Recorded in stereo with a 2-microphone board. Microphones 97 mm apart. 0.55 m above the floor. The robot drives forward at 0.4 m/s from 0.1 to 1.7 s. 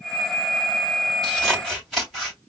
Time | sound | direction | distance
1.2 | scissors | 5° left (ahead or behind) | 3 m